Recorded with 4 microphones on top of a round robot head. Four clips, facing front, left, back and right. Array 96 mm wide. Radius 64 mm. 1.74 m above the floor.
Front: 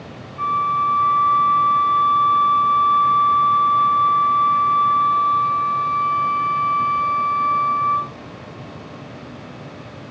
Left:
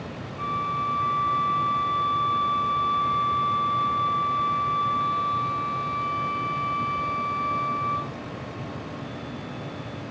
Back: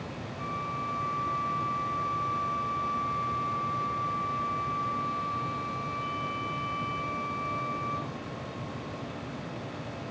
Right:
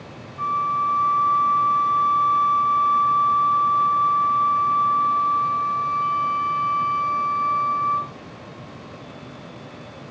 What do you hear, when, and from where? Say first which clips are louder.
0.4 s a flute: right 6 dB, front 16 dB; 30° right